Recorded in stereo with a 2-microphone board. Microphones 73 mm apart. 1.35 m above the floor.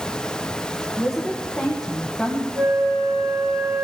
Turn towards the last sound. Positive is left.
turn(degrees=-40)  # may be behind; listen again after turning